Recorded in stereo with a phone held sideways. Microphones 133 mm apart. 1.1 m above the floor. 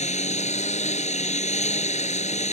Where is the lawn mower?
60° left (ahead or behind).